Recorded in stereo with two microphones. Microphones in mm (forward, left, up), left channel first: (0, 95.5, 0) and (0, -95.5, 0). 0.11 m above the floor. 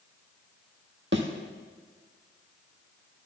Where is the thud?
70° right (ahead or behind), 1.1 m.